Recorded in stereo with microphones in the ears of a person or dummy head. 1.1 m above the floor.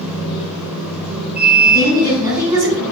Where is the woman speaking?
15° right (ahead or behind), 4 m.